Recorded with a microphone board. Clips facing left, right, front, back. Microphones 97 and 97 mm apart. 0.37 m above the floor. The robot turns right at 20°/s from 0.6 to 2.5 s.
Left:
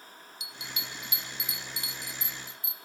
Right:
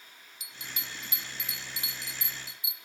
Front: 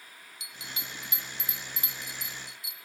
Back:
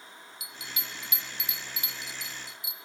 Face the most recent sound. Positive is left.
turn(degrees=-20)